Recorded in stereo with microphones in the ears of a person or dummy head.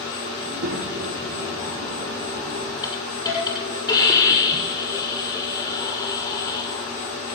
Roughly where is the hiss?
Left.